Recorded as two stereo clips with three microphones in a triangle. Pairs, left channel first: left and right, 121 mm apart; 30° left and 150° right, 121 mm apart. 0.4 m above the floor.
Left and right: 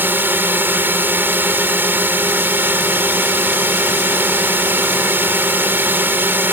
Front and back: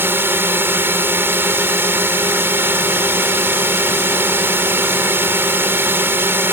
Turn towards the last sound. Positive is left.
turn(degrees=-125)